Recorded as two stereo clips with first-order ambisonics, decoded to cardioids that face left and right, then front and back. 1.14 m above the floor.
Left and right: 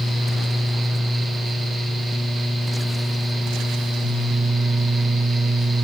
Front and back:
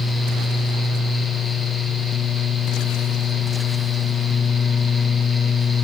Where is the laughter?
No laughter in this recording.